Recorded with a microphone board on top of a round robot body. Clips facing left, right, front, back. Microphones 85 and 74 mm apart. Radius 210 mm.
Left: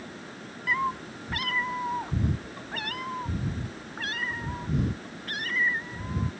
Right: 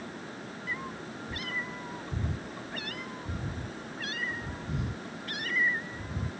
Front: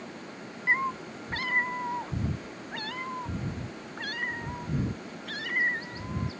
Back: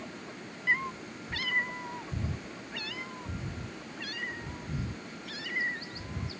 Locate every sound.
0.7 s a cat meowing: 60° left; by 6.3 s 40° left